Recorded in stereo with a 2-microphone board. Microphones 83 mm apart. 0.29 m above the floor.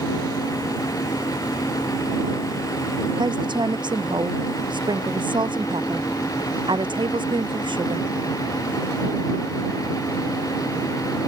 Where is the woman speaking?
70° right (ahead or behind); by 8.1 s 80° right.